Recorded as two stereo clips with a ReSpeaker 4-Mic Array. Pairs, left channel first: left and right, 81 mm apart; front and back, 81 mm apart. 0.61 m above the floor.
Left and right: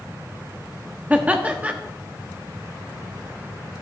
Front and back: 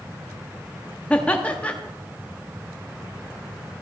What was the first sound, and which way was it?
Laughter, 50° right.